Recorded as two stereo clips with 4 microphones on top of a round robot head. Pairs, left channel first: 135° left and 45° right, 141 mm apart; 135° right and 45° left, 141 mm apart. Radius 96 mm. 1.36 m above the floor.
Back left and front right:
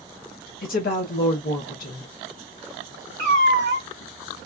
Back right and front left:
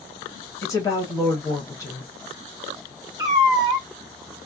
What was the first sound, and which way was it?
A woman speaking, 155° left.